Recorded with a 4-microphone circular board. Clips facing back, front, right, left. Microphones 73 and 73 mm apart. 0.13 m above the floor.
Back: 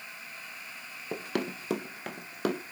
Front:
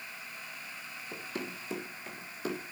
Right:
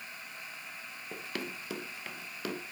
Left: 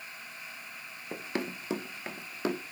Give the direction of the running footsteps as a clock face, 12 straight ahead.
7 o'clock.